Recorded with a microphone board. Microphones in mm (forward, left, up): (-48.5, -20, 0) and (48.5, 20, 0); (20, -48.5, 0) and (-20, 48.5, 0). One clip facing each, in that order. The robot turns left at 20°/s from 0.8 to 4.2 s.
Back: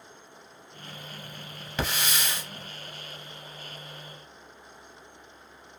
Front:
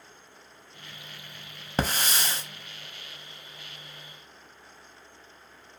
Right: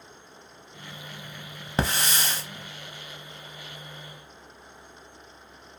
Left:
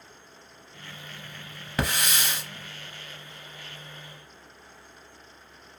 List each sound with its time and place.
1.8 s a hiss: 15° right, 0.6 m; by 2.4 s 30° right, 0.6 m